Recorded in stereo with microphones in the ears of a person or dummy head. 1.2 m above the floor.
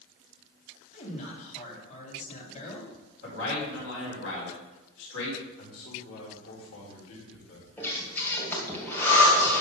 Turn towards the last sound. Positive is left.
turn(degrees=10)  # may be behind; listen again after turning